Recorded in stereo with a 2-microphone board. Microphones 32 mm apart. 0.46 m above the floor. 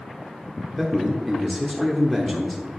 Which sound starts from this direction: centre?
A man speaking, at 0.8 s.